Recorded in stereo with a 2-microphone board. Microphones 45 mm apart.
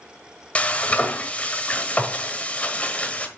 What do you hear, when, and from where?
0.6 s frying: 30° left (ahead or behind), 1.3 m